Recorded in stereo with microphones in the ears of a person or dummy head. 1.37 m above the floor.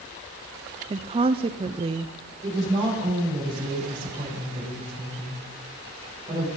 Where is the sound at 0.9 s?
30° right (ahead or behind), 0.5 m.